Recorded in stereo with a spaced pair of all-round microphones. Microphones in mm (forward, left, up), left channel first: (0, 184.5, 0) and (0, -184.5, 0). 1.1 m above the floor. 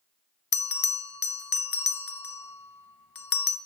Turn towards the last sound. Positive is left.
turn(degrees=70)  # may be behind; listen again after turning